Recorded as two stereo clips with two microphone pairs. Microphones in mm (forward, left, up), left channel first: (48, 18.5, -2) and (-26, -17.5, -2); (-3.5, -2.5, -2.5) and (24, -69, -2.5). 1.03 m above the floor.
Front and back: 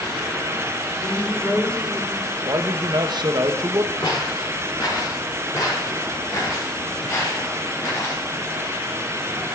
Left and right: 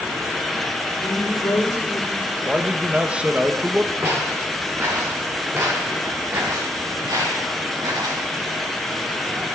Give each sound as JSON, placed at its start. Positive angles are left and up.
{"t": 1.0, "sound": "a woman speaking", "azimuth_deg": 105, "distance_m": 4.5}
{"t": 2.5, "sound": "a man speaking", "azimuth_deg": -135, "distance_m": 1.0}
{"t": 4.0, "sound": "footsteps", "azimuth_deg": -10, "distance_m": 5.5}